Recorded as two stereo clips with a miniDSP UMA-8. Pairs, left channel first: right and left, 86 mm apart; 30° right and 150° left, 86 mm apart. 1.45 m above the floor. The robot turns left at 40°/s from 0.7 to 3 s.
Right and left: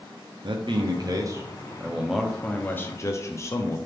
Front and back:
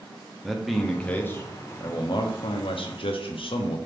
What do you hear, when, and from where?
0.4 s a man speaking: 60° left, 0.5 m; by 3.8 s 30° right, 0.5 m